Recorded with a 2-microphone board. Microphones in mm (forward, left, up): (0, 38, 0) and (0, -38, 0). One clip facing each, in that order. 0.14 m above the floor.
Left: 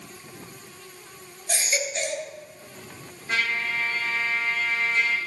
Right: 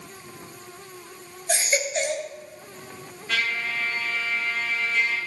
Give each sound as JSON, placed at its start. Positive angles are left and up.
{"t": 1.5, "sound": "a baby crying", "side_deg": -35, "distance_m": 1.8}
{"t": 3.3, "sound": "a trumpet", "side_deg": 30, "distance_m": 3.0}